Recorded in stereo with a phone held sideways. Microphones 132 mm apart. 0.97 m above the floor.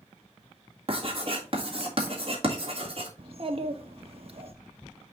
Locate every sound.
0.9 s writing: 45° right (ahead or behind), 1.9 m
3.2 s a child speaking: 45° right (ahead or behind), 1.1 m